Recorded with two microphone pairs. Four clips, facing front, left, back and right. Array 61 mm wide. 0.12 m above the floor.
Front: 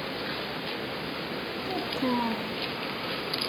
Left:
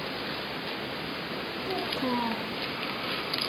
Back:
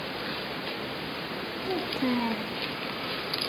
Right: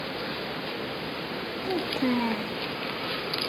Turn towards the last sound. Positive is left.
turn(degrees=-120)